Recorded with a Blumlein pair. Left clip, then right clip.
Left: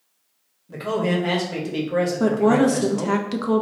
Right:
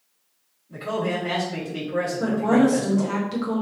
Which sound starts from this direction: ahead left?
A man speaking, at 0.7 s.